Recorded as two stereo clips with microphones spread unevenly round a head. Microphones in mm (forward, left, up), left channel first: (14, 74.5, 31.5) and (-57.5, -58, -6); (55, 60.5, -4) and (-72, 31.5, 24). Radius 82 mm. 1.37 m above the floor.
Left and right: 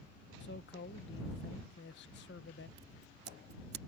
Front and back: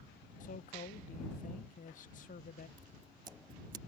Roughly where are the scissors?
Behind right.